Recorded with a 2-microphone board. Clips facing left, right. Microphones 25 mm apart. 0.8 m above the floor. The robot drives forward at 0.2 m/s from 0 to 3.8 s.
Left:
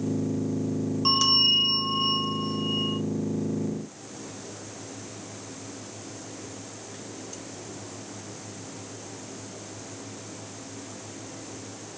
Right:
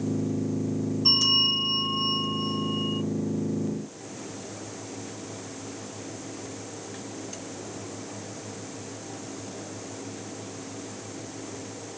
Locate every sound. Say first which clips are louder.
1.1 s a bell: even; 45° left (ahead or behind), 1.7 m; by 3.0 s 35° left (ahead or behind), 2 m